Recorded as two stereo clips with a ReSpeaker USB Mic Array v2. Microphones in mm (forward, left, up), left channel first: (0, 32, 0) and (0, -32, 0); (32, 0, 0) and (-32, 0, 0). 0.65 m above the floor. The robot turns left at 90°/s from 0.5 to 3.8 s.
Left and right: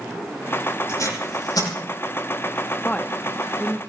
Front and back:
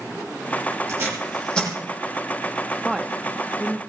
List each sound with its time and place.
0.9 s tape being pulled: 140° left, 8 m; by 1.7 s 60° left, 8 m
2.8 s a woman speaking: 105° left, 0.6 m; by 3.8 s 20° left, 0.6 m